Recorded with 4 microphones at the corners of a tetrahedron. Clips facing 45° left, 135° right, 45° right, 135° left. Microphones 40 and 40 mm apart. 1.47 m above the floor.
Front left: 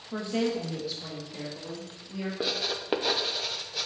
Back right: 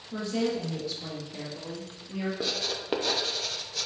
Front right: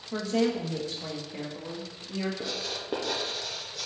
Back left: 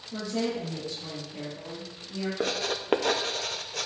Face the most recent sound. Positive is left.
turn(degrees=120)